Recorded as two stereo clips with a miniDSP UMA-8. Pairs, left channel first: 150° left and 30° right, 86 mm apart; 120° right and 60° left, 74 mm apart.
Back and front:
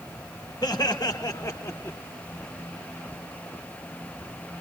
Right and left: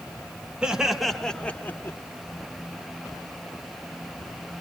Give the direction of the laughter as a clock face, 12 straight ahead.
8 o'clock.